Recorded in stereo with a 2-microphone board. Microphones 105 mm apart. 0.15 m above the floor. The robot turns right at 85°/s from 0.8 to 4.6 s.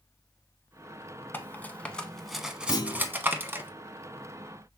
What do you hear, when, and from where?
1.3 s cutlery clinking: 20° left (ahead or behind), 0.6 m; by 3.7 s 15° right (ahead or behind), 0.6 m
2.7 s a clunk: 75° left, 0.6 m; by 3.2 s 115° left, 0.6 m